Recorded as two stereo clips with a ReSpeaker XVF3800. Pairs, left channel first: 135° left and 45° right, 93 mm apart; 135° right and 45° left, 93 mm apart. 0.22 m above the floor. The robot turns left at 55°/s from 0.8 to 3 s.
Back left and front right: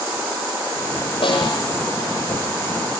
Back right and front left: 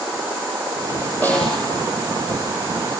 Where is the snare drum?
155° left, 7 m; by 1.7 s 130° left, 7 m.